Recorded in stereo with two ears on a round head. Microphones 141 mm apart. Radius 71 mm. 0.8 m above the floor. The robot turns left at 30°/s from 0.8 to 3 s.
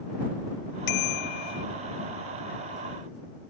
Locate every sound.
0.9 s a bicycle bell: 70° left (ahead or behind); by 1.6 s 50° left (ahead or behind)